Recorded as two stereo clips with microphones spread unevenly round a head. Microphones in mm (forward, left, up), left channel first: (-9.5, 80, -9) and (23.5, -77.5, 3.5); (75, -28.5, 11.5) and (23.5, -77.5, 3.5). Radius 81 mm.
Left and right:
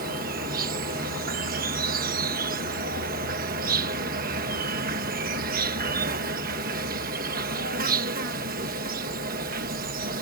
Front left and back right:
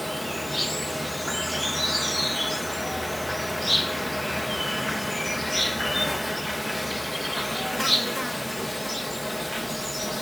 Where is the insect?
45° right.